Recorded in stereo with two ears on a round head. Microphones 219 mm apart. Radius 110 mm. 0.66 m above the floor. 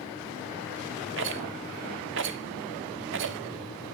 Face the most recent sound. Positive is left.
turn(degrees=-50)  # may be behind; listen again after turning